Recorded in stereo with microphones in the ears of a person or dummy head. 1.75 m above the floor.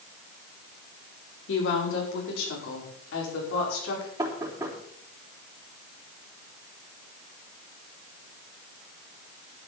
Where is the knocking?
25° right (ahead or behind), 3 m.